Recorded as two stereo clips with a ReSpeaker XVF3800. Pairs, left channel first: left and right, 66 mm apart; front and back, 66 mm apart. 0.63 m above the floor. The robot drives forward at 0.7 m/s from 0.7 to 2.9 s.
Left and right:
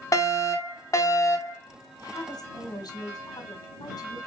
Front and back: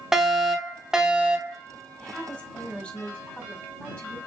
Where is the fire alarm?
95° left, 2.5 m; by 1.6 s 115° left, 2.5 m.